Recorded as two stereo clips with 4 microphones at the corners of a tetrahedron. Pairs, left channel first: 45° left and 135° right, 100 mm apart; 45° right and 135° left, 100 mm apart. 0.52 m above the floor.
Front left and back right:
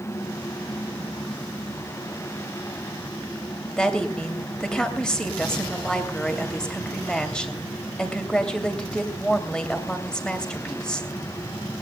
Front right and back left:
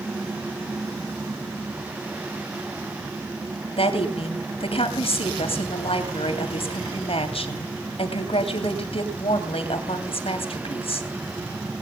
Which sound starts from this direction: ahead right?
A woman speaking, at 3.8 s.